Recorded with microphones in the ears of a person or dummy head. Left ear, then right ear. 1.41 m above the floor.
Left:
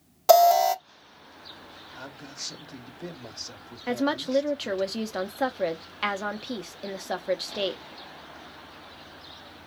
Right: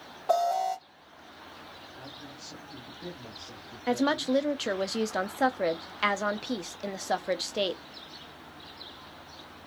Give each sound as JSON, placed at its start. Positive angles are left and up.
{"t": 0.3, "sound": "an alarm", "side_deg": 70, "distance_m": 0.8}
{"t": 1.9, "sound": "a man speaking", "side_deg": 70, "distance_m": 1.1}
{"t": 3.9, "sound": "a woman speaking", "side_deg": -10, "distance_m": 0.5}